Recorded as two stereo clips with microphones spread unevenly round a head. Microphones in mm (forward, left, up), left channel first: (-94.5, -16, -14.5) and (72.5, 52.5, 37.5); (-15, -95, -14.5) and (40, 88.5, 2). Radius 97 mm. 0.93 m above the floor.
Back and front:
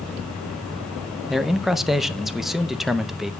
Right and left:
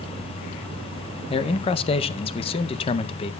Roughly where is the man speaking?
Right.